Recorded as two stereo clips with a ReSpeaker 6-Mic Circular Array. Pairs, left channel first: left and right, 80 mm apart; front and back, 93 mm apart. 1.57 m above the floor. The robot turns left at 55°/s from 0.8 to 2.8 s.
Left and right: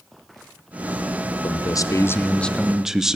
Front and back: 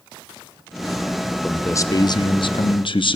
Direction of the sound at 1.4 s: 70° left.